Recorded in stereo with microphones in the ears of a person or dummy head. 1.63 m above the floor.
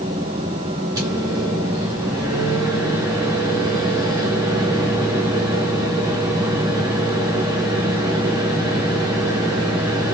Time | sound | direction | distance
0.9 | a microwave | 15° right (ahead or behind) | 0.5 m